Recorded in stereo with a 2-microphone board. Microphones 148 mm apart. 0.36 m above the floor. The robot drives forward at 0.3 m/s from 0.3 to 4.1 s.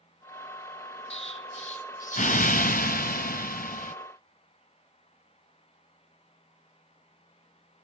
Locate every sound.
1.1 s an explosion: 45° left (ahead or behind), 0.9 m; by 3.9 s 70° left (ahead or behind), 0.7 m